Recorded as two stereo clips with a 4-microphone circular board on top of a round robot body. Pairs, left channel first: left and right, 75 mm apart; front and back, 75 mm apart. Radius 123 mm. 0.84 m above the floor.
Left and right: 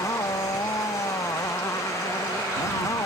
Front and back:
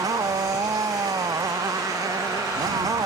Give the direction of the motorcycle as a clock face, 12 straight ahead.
7 o'clock.